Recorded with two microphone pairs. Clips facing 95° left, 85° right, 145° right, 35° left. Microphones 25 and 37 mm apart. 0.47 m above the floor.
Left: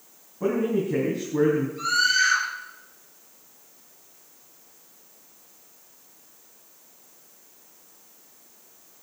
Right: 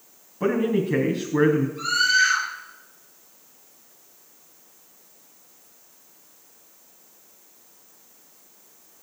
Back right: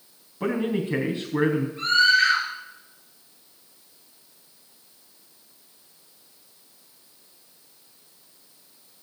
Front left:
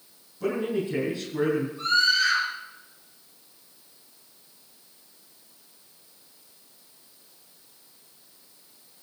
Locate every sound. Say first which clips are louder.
0.4 s a man speaking: right 2 dB, back right 2 dB; 120° right, 3.5 m
1.8 s a scream: right 1 dB, back right 5 dB; 170° right, 8 m